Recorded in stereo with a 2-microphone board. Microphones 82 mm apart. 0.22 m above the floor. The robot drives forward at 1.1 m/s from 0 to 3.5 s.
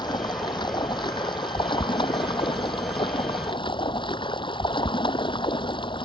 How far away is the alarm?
I don't hear an alarm.